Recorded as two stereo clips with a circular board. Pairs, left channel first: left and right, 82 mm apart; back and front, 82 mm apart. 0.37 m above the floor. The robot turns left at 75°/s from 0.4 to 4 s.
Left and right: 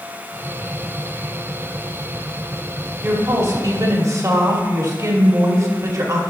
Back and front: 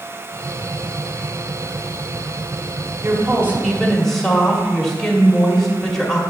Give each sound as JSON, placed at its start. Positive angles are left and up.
{"t": 3.0, "sound": "a woman speaking", "azimuth_deg": -25, "distance_m": 1.1}